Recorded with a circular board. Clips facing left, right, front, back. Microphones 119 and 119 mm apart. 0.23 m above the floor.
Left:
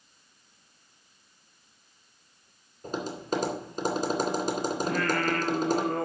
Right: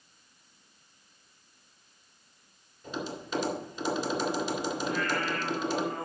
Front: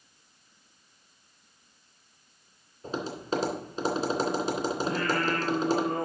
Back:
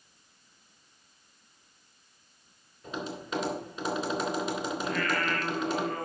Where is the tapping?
50° left, 2.5 m.